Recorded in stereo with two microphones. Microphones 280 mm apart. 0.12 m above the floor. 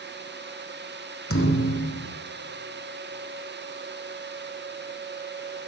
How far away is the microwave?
No microwave in this recording.